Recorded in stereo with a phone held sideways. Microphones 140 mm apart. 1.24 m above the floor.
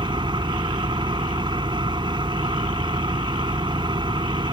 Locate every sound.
0.0 s an engine running: 30° right (ahead or behind)